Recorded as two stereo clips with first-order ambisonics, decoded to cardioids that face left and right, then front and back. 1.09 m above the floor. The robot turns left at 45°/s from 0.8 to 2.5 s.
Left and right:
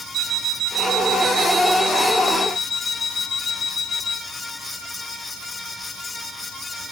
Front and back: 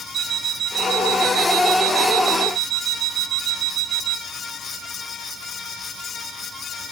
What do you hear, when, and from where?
0.1 s an alarm clock: 125° right, 0.7 m; by 4.2 s 160° left, 0.7 m